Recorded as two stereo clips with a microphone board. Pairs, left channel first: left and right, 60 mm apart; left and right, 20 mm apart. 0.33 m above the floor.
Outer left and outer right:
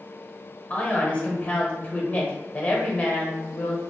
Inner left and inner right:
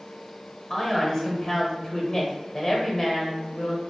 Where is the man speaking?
25° left (ahead or behind), 1.2 m.